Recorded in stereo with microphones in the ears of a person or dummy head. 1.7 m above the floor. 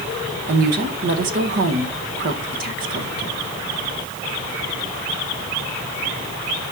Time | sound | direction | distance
0.5 | a woman speaking | 60° right (ahead or behind) | 1.3 m